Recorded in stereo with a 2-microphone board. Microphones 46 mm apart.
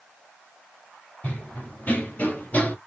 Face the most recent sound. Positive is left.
turn(degrees=35)  # may be behind; listen again after turning